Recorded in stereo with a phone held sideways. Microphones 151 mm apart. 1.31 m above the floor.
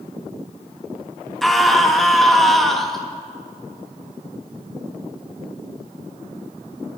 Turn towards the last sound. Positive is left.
turn(degrees=0)  # may be behind; listen again after turning